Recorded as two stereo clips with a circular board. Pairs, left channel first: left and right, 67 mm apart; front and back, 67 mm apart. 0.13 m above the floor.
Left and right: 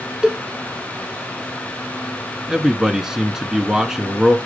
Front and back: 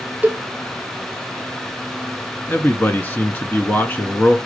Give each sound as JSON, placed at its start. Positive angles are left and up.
{"t": 0.2, "sound": "a cowbell", "azimuth_deg": -155, "distance_m": 0.6}
{"t": 2.5, "sound": "a man speaking", "azimuth_deg": -15, "distance_m": 1.1}